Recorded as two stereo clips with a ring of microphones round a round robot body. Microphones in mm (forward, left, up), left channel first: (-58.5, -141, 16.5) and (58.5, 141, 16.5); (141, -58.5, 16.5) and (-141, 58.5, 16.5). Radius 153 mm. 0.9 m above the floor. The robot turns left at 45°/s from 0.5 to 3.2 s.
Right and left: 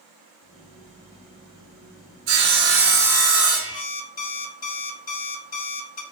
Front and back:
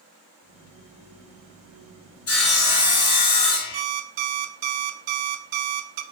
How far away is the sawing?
About 1.6 m.